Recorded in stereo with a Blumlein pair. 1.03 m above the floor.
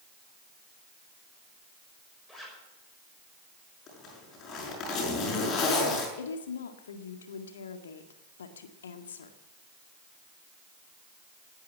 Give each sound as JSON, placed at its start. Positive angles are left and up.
{"t": 2.3, "sound": "a zipper", "azimuth_deg": 0, "distance_m": 5.5}
{"t": 3.9, "sound": "a zipper", "azimuth_deg": 30, "distance_m": 6.5}
{"t": 6.2, "sound": "a woman speaking", "azimuth_deg": 65, "distance_m": 1.9}